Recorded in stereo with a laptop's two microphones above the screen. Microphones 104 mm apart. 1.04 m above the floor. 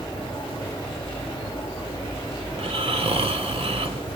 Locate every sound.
0.0 s a fan: 55° left (ahead or behind), 1.0 m
2.5 s snoring: 65° right (ahead or behind), 1.4 m